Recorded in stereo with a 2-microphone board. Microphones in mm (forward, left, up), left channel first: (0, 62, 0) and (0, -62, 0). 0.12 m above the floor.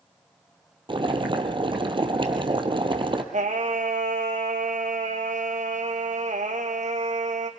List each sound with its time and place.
0.9 s boiling: 45° right (ahead or behind), 2 m
3.3 s singing: 75° right (ahead or behind), 2 m